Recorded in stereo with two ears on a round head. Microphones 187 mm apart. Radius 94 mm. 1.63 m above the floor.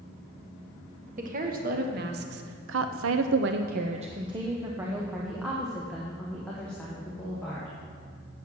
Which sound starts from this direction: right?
A woman speaking, at 1.2 s.